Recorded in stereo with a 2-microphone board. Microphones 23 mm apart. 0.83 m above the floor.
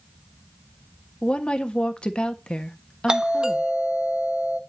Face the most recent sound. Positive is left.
turn(degrees=-35)  # may be behind; listen again after turning